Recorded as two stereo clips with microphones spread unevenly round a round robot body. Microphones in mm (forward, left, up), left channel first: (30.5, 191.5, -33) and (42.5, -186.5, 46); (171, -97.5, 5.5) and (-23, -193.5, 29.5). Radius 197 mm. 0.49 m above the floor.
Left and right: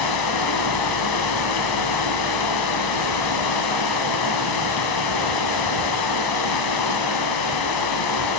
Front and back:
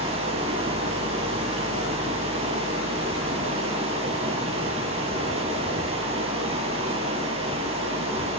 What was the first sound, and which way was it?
Running water, 130° left.